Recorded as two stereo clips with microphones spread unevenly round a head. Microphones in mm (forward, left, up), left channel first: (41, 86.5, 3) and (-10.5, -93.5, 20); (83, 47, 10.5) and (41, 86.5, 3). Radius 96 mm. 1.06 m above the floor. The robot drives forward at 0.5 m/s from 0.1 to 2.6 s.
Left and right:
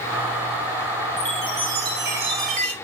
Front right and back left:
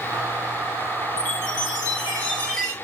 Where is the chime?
60° right, 2 m; by 2.7 s 80° right, 1.9 m.